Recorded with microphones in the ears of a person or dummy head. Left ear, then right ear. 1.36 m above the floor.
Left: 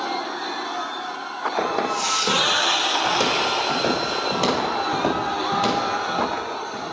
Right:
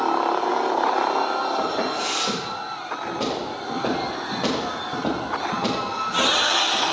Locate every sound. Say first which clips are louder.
1.6 s footsteps: left 1 dB; 60° left (ahead or behind), 4.5 m; by 6.8 s 65° left (ahead or behind), 8 m